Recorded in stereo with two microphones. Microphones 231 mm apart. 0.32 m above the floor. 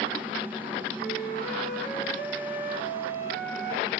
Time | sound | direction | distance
1.0 | a flute | 40° right (ahead or behind) | 3 m